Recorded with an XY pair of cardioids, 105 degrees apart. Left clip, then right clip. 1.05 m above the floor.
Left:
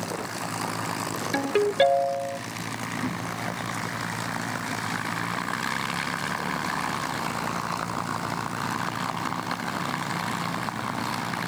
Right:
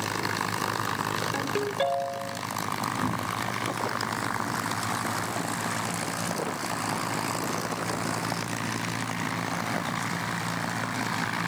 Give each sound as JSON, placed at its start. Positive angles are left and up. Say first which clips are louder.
{"t": 1.3, "sound": "a ringtone", "louder": "left 5 dB", "azimuth_deg": 45, "distance_m": 3.0}
{"t": 3.0, "sound": "a cupboard door", "louder": "right 2 dB", "azimuth_deg": -25, "distance_m": 6.0}